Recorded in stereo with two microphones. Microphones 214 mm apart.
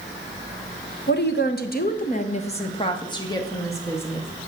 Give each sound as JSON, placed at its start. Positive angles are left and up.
{"t": 1.1, "sound": "a woman speaking", "side_deg": 55, "distance_m": 1.1}